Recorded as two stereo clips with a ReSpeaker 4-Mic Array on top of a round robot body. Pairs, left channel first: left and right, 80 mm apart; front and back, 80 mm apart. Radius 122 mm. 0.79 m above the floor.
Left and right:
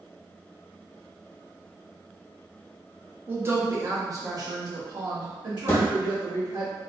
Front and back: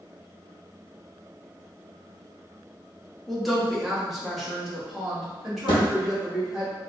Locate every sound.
3.3 s a woman speaking: 90° right, 1.0 m; by 6.7 s 95° right, 2.5 m
5.7 s a thud: 30° left, 0.9 m